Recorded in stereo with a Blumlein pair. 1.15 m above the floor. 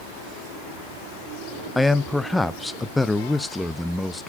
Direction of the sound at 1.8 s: 5° left.